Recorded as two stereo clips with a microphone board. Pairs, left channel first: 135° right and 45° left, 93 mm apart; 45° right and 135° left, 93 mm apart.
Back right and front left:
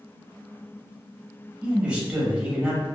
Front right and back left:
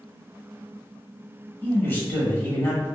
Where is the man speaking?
15° right, 1.0 m.